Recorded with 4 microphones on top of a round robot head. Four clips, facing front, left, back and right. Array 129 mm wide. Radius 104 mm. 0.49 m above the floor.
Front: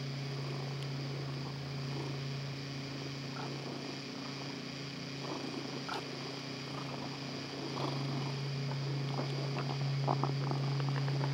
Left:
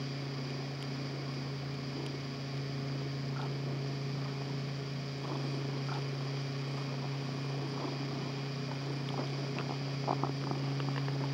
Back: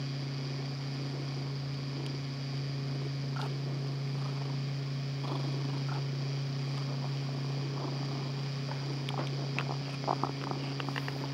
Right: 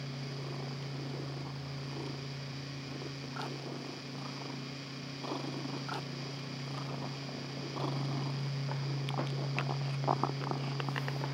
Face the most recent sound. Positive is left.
No sound to turn to.